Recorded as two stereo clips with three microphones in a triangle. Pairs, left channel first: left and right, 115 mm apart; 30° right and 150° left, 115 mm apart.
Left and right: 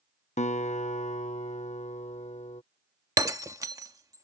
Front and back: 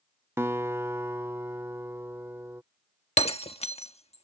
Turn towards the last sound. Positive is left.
turn(degrees=-30)